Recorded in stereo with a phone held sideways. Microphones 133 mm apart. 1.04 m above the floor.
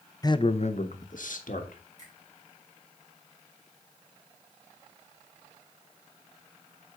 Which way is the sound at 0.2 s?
30° left (ahead or behind).